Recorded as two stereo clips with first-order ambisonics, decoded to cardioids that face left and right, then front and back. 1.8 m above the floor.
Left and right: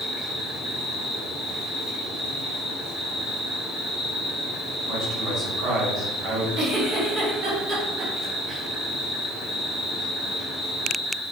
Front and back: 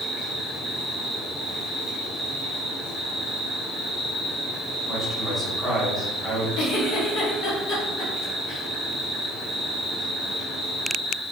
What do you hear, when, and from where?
0.0 s an insect: 40° right, 1.4 m
4.9 s a man speaking: 105° right, 0.9 m
6.6 s a giggle: 35° right, 0.7 m